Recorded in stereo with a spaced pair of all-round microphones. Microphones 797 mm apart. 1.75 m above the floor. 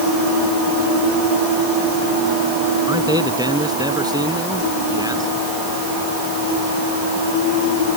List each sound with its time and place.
2.9 s a man speaking: 5° right (ahead or behind)